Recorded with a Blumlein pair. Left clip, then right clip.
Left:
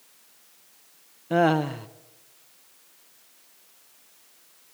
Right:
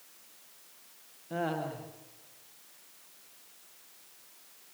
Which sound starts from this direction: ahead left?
Laughter, at 1.3 s.